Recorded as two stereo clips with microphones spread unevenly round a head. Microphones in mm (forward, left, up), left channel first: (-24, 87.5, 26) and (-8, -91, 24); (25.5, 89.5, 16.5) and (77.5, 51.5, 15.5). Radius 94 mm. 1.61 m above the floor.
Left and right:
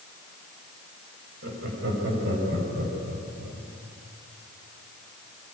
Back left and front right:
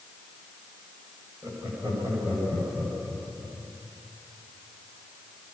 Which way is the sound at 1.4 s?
110° right.